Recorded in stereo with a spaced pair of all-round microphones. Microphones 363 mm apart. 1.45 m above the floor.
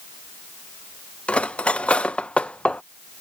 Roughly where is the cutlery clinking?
Centre.